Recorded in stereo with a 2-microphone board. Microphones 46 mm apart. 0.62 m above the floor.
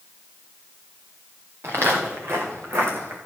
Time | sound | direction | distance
1.6 | footsteps | 70° right (ahead or behind) | 3 m